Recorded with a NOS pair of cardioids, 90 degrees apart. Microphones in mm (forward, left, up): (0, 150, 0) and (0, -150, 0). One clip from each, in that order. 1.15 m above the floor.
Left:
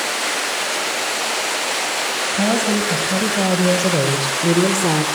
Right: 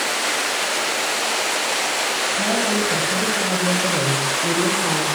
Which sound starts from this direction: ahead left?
A woman speaking, at 2.3 s.